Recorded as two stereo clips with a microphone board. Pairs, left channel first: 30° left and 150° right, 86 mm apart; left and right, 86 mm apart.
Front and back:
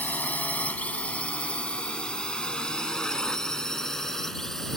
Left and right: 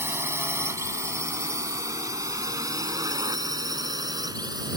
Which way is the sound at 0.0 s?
35° right.